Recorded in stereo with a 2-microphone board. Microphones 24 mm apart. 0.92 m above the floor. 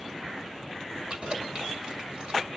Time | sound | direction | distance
1.1 | keys jangling | 35° right (ahead or behind) | 2 m